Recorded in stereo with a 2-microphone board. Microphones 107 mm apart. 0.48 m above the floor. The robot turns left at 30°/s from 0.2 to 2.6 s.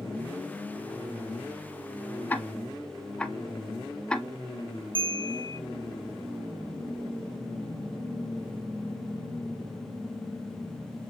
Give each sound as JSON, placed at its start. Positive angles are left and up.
{"t": 2.3, "sound": "ticking", "side_deg": 20, "distance_m": 0.7}
{"t": 5.0, "sound": "a bell", "side_deg": -50, "distance_m": 1.0}